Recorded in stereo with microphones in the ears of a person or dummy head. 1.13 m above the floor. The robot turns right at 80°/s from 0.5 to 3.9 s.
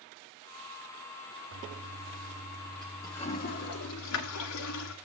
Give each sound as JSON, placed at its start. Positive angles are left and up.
{"t": 1.5, "sound": "a toilet flushing", "side_deg": -70, "distance_m": 1.4}